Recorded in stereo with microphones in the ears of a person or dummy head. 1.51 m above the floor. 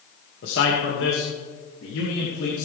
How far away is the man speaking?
About 2 m.